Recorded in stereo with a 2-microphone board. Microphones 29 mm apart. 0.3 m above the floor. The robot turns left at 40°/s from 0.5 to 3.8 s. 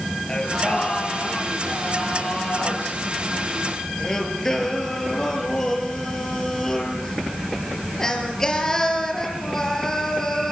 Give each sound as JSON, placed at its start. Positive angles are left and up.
{"t": 0.3, "sound": "singing", "azimuth_deg": 155, "distance_m": 5.0}